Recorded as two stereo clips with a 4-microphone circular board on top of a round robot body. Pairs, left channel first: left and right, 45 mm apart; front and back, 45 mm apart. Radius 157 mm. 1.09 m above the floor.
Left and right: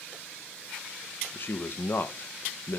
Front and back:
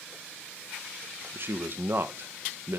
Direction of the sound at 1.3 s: 135° left.